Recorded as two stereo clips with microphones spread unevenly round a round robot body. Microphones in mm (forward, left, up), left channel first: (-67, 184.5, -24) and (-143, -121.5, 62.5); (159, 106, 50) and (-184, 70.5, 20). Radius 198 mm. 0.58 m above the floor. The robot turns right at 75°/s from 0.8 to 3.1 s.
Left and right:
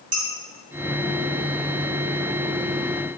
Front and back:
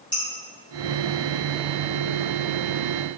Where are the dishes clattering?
75° right, 3.5 m.